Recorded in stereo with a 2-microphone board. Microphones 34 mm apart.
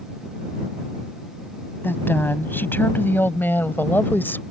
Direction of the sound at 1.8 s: 80° left.